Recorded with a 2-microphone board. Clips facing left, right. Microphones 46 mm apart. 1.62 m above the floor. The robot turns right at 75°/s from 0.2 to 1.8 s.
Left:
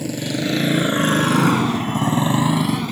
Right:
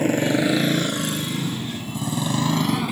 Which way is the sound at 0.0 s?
40° right (ahead or behind).